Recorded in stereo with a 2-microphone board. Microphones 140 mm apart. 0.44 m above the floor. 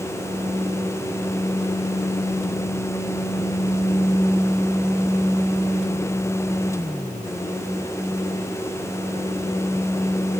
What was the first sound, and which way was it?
Only background noise.